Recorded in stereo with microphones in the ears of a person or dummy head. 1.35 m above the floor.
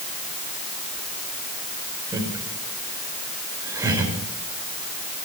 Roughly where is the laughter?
Centre.